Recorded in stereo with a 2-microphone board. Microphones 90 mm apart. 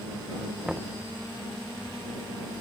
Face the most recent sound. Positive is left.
turn(degrees=0)  # may be behind; listen again after turning